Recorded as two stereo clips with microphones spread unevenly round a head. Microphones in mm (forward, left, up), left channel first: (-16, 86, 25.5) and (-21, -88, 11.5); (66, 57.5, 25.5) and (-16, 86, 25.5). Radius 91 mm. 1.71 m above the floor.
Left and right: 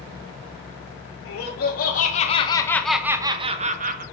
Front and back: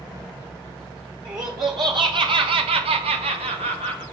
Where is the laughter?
115° left, 1.4 m; by 4.0 s 135° right, 1.1 m.